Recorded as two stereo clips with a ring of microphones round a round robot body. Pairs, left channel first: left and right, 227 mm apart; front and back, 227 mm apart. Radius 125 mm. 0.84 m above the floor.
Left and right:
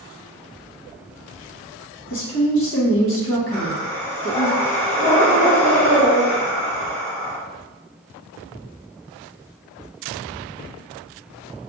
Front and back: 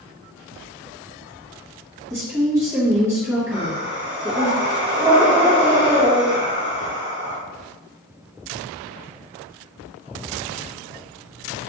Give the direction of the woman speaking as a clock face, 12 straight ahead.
9 o'clock.